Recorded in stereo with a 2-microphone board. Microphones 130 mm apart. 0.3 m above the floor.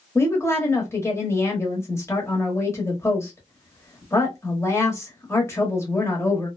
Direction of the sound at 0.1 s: 20° left (ahead or behind).